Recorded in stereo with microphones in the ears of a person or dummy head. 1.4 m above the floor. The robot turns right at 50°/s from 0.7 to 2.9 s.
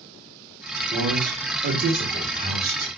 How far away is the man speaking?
About 1.5 m.